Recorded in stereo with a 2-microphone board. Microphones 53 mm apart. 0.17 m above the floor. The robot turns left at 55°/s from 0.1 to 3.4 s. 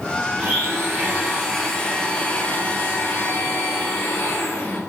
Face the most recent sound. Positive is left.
turn(degrees=85)